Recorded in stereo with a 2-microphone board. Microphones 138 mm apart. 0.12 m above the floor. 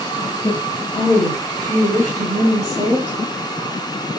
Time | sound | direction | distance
0.4 | a woman speaking | 25° left (ahead or behind) | 1.3 m